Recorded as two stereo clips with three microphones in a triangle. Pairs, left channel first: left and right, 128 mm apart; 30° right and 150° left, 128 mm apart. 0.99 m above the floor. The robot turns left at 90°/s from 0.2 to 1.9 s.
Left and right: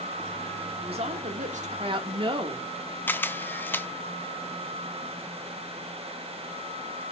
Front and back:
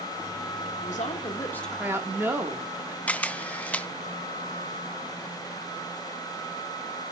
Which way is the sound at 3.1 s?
35° left.